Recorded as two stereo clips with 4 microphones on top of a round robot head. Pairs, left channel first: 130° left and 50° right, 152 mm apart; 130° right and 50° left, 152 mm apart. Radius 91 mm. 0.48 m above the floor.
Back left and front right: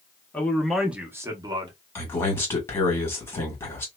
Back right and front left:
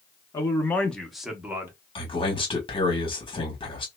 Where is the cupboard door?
No cupboard door in this recording.